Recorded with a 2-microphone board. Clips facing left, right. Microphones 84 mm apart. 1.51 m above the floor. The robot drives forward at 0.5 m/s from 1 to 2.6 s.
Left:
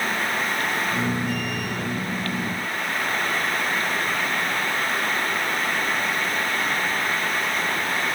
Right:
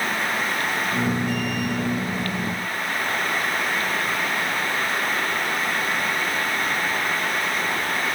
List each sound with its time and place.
Only background noise.